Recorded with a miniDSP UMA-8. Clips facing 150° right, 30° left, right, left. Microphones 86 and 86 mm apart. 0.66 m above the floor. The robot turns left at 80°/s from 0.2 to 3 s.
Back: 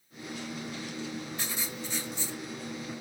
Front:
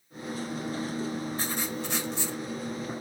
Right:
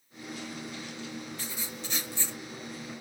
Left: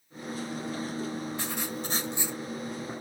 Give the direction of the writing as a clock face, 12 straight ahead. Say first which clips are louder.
Front 5 dB, left 7 dB; 9 o'clock.